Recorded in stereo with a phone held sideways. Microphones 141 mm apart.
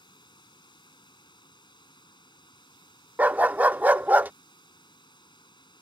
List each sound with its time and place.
0.0 s running water: 35° left (ahead or behind)
3.2 s a dog barking: 10° right (ahead or behind)